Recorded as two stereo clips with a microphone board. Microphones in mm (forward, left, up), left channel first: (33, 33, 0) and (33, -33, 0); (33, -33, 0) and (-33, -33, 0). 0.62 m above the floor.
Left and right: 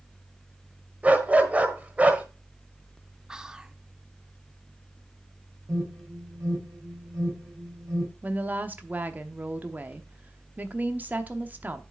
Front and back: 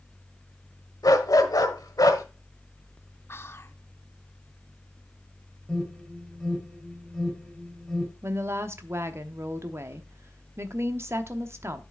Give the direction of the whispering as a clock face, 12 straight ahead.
1 o'clock.